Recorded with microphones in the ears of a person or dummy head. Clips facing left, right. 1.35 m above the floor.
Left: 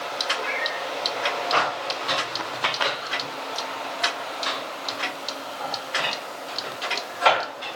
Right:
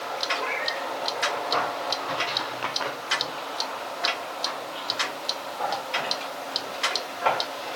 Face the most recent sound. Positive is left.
turn(degrees=40)  # may be behind; listen again after turning